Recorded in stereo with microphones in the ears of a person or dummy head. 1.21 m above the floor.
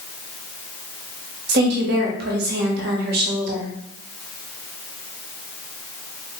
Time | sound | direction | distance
1.5 | a woman speaking | 60° right (ahead or behind) | 1.3 m